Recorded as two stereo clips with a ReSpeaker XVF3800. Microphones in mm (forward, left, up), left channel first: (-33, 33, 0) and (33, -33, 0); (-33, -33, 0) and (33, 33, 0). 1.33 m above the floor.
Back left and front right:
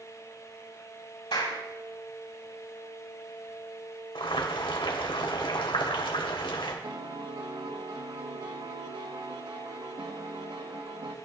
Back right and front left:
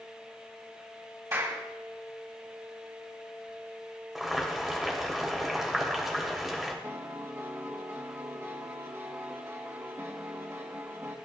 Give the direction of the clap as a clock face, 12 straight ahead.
9 o'clock.